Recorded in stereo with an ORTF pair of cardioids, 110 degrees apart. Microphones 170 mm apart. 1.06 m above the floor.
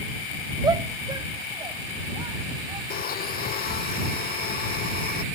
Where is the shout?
25° right; by 2.8 s 30° right.